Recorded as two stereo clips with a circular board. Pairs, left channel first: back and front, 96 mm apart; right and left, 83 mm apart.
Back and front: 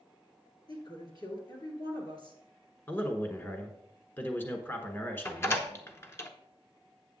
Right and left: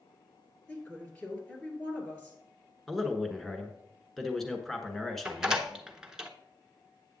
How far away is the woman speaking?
About 2.5 m.